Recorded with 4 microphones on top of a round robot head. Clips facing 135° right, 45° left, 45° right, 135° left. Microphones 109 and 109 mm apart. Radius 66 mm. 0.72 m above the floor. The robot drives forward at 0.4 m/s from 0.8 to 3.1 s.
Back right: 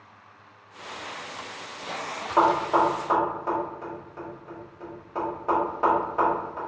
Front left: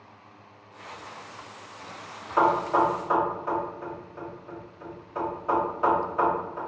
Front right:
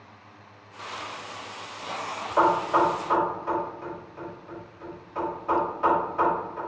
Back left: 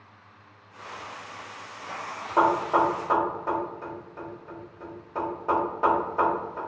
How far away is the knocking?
About 1.4 m.